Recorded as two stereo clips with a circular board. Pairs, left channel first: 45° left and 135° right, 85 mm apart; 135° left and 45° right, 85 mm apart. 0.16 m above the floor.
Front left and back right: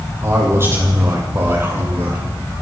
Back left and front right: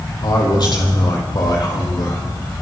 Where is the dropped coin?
I don't hear a dropped coin.